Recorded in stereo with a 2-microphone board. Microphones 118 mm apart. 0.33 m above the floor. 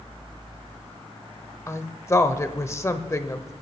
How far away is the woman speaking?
About 0.9 m.